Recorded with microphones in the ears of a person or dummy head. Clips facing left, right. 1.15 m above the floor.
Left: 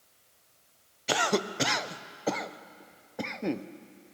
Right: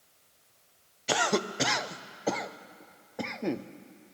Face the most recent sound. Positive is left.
turn(degrees=5)  # may be behind; listen again after turning